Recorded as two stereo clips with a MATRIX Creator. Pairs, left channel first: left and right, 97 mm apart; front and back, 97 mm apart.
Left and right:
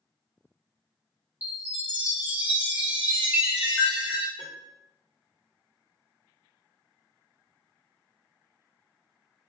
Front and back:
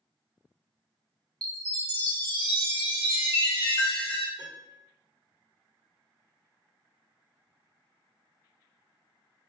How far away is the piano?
About 1.3 m.